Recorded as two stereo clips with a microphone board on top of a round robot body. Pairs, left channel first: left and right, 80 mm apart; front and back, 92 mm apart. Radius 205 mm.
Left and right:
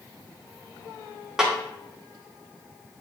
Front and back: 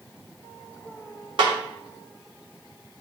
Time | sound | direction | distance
1.4 | a snare drum | 175° right | 2 m